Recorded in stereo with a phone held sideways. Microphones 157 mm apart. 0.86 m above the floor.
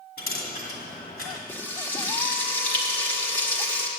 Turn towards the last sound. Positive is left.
turn(degrees=15)  # may be behind; listen again after turning